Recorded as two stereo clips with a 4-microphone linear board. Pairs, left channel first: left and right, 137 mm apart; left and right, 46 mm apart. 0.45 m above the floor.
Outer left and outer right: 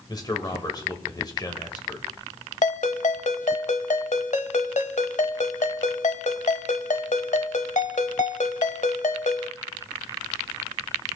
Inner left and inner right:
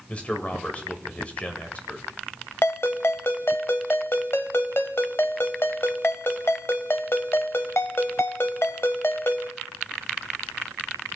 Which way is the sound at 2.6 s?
65° left (ahead or behind).